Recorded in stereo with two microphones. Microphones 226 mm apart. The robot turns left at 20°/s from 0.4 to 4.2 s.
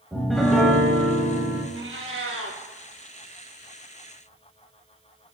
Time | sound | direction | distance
0.1 | a piano | centre (ahead or behind) | 0.8 m
1.7 | a cat meowing | 65° right (ahead or behind) | 0.8 m